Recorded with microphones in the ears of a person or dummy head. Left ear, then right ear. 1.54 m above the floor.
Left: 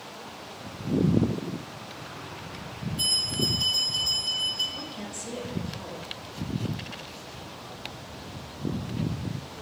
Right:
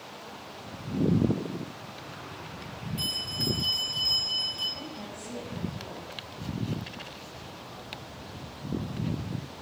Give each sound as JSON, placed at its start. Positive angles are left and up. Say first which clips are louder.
{"t": 3.0, "sound": "a bell", "louder": "left 5 dB", "side_deg": 0, "distance_m": 1.2}
{"t": 4.8, "sound": "a woman speaking", "louder": "left 3 dB", "side_deg": 80, "distance_m": 1.9}